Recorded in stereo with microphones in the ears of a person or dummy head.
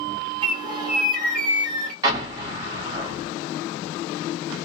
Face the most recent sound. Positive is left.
turn(degrees=-25)  # may be behind; listen again after turning